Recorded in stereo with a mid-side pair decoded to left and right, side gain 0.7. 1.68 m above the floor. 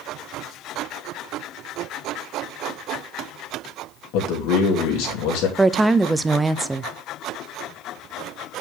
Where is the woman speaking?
10° right, 0.5 m.